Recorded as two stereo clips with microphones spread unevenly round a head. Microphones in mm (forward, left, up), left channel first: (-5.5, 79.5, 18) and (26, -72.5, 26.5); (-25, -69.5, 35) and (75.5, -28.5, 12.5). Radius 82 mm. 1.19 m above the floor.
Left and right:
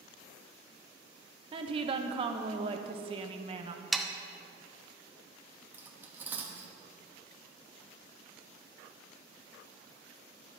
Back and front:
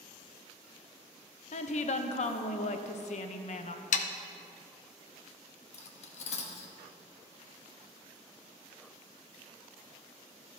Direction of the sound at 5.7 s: 155° right.